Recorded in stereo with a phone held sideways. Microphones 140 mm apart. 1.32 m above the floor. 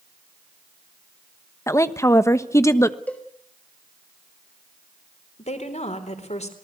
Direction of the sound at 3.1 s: 10° left (ahead or behind).